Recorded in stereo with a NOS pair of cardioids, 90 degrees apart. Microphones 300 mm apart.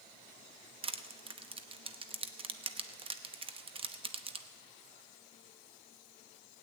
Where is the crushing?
20° right, 0.8 m.